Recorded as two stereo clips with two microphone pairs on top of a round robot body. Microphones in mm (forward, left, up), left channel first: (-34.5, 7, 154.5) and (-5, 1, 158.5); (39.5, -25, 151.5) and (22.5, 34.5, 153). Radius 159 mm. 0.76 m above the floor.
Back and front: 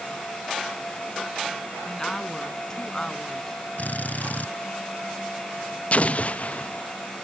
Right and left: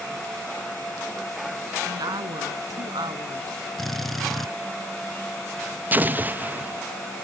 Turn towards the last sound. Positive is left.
turn(degrees=160)